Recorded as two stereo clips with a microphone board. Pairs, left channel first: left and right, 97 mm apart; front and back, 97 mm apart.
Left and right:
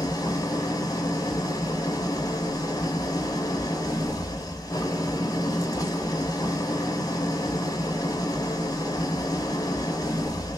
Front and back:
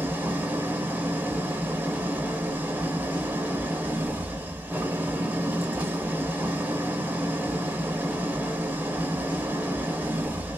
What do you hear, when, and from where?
0.0 s an engine running: 115° left, 0.7 m